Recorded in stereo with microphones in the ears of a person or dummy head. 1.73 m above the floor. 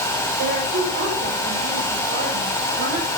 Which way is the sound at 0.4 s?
50° right (ahead or behind).